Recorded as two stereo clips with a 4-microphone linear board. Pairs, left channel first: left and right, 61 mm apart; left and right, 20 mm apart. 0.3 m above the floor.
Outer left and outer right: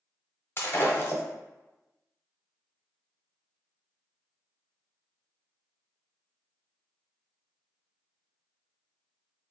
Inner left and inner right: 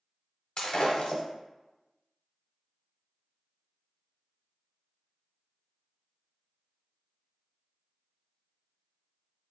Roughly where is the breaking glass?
Left.